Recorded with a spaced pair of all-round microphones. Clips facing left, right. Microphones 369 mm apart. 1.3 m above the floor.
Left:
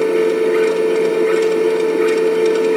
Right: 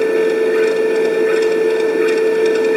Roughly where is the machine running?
Centre.